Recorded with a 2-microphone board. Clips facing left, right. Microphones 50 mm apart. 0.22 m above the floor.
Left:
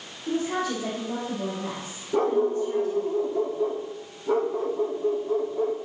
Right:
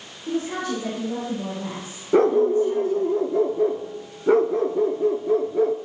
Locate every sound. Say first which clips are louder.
0.3 s a woman speaking: right 1 dB; centre (ahead or behind), 5.5 m; by 3.1 s 30° right (ahead or behind), 4.5 m
2.1 s a dog barking: right 6 dB; 75° right (ahead or behind), 1.1 m